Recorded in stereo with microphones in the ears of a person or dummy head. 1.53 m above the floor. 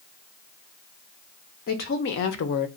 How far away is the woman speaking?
About 0.7 m.